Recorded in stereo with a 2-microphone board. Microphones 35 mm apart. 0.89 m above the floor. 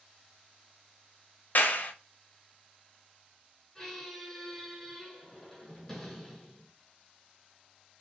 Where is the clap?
55° left (ahead or behind), 0.5 m.